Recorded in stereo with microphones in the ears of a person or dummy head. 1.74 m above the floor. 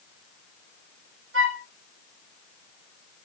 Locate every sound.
1.3 s a flute: 65° right (ahead or behind), 1.8 m